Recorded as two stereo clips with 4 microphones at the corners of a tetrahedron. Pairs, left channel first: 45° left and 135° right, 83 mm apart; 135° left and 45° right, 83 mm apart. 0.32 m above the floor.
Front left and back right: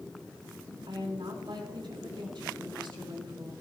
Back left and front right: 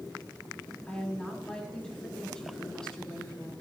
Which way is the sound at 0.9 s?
145° right.